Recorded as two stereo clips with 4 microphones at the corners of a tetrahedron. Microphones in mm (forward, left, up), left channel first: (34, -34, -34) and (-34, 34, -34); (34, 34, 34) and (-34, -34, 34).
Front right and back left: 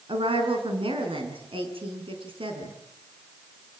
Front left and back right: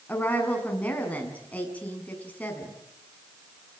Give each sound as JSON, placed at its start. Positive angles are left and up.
{"t": 0.1, "sound": "a woman speaking", "azimuth_deg": 120, "distance_m": 6.0}